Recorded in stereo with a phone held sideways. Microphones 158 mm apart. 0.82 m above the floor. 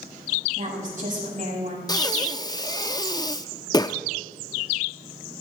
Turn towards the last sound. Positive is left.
turn(degrees=25)  # may be behind; listen again after turning